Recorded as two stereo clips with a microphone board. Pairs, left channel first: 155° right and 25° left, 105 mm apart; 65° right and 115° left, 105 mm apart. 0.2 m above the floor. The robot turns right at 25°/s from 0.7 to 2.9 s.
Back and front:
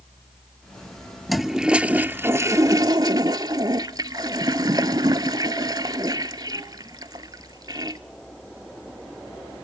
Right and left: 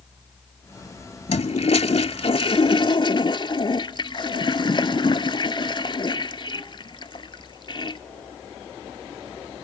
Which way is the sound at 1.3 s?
70° right.